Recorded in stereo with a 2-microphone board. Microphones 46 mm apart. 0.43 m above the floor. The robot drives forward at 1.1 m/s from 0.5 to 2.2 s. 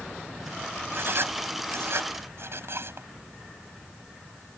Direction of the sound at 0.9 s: 60° right (ahead or behind).